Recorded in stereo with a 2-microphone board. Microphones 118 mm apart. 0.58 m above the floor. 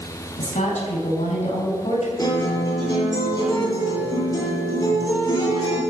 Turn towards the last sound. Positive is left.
turn(degrees=35)  # may be behind; listen again after turning